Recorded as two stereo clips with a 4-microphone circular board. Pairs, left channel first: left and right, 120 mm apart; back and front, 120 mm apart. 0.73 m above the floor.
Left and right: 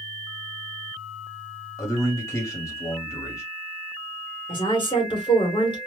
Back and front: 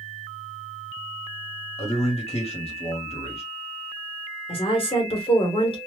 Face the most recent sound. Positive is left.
turn(degrees=135)